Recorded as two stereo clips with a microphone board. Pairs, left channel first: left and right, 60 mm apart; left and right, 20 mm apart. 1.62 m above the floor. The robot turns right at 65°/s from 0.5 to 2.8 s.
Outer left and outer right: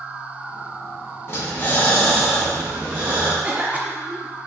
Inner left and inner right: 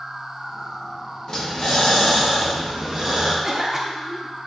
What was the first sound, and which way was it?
Breathing, 110° left.